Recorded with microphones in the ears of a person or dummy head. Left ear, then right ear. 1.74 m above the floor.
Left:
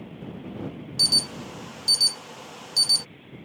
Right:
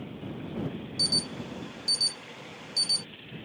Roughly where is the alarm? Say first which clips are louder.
Left 6 dB; left.